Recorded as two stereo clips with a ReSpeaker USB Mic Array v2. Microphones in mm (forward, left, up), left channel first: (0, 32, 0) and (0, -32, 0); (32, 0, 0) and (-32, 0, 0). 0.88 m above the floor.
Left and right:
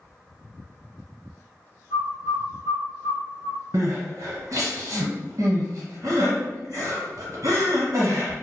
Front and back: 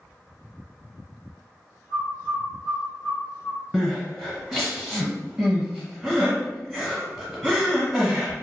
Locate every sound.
1.9 s a bird: 10° left, 1.0 m
3.7 s crying: 90° right, 1.2 m